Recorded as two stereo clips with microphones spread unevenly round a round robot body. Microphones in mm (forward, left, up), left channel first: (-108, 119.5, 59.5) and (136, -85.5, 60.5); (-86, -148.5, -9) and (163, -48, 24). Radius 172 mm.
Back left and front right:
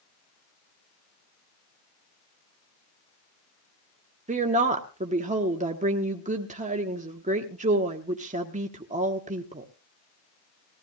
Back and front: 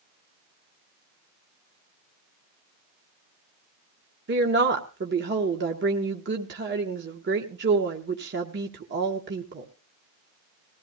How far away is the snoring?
No snoring in this recording.